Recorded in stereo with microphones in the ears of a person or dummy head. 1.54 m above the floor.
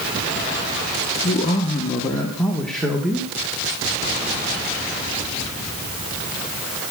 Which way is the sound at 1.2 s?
45° left (ahead or behind).